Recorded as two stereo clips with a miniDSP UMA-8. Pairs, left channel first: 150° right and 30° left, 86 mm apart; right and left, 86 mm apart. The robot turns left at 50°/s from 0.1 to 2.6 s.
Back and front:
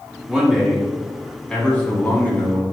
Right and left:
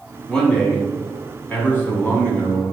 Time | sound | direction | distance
0.3 | a man speaking | 30° right | 1.0 m